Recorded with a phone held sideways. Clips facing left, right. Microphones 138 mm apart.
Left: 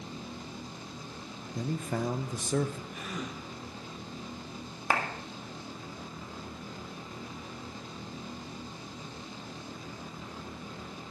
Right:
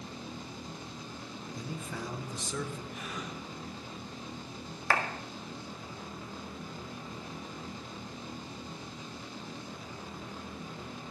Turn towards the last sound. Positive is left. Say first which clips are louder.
# even
turn(degrees=20)  # may be behind; listen again after turning